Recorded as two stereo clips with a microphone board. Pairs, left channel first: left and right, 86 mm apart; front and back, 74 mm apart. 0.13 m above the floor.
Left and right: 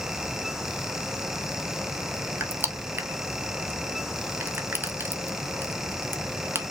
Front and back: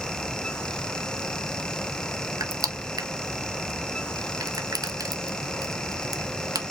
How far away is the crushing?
About 0.7 m.